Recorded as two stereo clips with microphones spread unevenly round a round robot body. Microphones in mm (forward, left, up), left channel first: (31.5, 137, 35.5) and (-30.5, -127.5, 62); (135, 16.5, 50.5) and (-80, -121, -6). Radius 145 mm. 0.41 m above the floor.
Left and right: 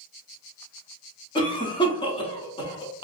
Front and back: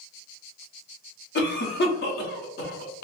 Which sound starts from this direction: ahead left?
A cough, at 1.4 s.